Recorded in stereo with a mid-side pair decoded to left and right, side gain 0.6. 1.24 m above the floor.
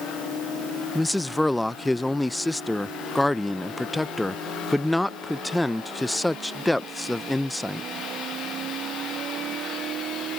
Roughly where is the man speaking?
Ahead.